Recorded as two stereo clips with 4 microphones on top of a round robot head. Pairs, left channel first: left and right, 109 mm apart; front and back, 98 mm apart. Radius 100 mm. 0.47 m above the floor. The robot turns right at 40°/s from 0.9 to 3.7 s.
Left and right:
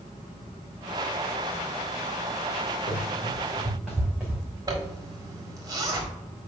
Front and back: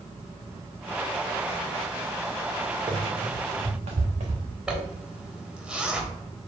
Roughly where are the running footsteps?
Behind left.